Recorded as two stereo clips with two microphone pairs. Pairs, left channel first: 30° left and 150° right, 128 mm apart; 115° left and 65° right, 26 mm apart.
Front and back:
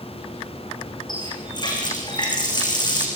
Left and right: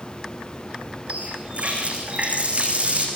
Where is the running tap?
25° right, 8 m.